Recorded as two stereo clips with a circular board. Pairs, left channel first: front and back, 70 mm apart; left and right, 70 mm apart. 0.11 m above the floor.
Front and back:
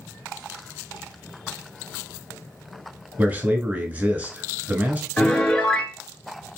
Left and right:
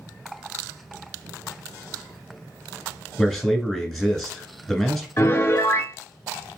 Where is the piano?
65° left, 0.6 m.